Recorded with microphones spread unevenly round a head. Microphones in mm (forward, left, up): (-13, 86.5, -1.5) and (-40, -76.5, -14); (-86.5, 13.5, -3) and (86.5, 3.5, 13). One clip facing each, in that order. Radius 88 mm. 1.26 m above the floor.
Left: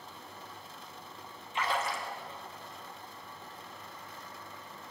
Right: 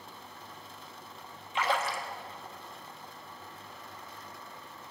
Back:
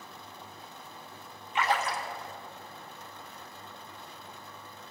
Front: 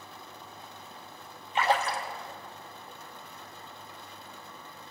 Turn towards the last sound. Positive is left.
turn(degrees=-65)